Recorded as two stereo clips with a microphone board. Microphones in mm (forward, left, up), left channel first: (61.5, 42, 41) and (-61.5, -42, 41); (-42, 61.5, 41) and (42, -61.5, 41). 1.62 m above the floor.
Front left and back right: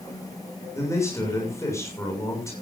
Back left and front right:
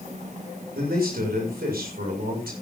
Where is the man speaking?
40° right, 6.5 m.